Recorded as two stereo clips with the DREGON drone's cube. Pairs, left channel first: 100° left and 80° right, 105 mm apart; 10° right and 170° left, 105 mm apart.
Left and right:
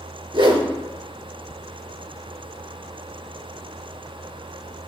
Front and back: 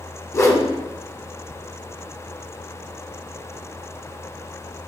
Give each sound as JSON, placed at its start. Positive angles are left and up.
{"t": 0.3, "sound": "a whoosh", "azimuth_deg": -65, "distance_m": 0.5}